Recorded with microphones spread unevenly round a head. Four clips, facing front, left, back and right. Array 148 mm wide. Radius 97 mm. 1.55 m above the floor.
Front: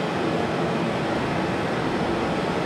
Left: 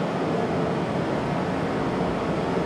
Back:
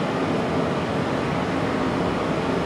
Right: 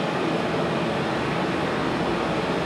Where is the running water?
140° left, 3 m.